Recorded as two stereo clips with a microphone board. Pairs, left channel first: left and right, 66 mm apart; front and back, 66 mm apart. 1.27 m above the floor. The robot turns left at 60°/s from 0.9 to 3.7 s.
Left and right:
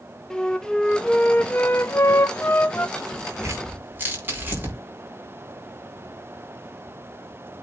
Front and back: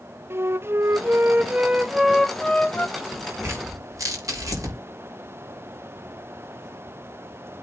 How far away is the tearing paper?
About 5 m.